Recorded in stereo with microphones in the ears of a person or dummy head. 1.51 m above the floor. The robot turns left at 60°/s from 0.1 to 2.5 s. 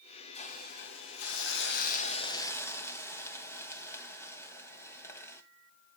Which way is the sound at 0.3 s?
140° left.